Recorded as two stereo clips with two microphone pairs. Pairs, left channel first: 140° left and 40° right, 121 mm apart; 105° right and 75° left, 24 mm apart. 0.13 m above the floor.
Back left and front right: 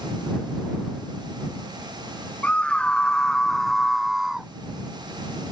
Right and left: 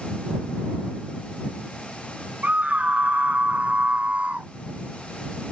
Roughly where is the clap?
No clap in this recording.